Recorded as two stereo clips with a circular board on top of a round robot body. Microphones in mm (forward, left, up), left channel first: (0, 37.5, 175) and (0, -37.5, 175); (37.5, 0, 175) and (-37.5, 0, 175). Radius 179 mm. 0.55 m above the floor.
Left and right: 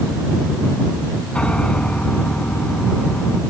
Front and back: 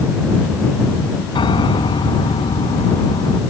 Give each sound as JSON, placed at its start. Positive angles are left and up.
{"t": 1.4, "sound": "a piano", "azimuth_deg": 15}